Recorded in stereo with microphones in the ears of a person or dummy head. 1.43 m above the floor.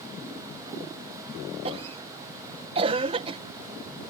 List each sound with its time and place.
1.6 s a cough: 30° right (ahead or behind)